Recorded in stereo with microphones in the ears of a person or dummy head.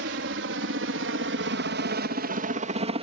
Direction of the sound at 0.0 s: 65° right (ahead or behind).